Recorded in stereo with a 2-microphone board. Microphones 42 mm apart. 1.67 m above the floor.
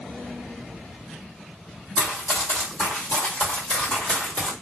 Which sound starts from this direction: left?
Running footsteps, at 2.0 s.